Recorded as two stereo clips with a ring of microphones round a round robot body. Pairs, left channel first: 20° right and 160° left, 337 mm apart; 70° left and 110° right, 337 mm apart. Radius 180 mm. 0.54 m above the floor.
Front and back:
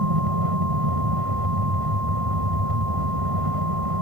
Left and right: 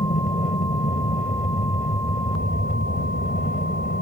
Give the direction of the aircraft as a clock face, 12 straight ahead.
7 o'clock.